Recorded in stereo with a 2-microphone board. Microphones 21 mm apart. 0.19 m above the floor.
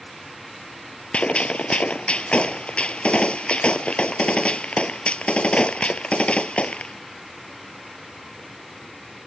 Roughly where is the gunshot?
Left.